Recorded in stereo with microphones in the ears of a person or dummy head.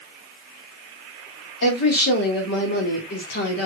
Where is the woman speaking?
60° left (ahead or behind), 2.5 m.